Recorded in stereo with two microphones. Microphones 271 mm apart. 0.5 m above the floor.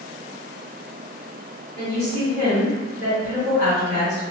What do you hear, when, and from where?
1.8 s a woman speaking: 40° left (ahead or behind), 1.5 m